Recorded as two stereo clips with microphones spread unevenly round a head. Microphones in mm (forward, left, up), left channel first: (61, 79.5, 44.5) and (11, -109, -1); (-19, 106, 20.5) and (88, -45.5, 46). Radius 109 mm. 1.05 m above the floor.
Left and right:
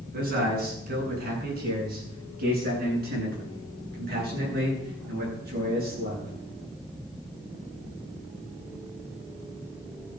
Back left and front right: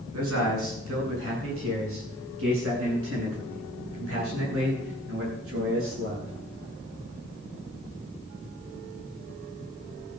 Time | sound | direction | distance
0.1 | a man speaking | 65° right | 8 m